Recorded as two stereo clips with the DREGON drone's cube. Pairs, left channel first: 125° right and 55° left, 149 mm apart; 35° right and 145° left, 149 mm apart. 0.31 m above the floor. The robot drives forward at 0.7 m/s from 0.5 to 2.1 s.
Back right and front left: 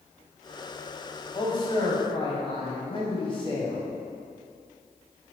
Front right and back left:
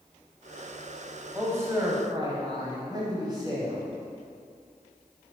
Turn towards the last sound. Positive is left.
turn(degrees=-160)